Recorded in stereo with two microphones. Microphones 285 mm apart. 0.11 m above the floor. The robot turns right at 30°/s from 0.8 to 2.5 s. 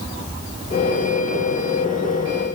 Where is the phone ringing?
I don't hear a phone ringing.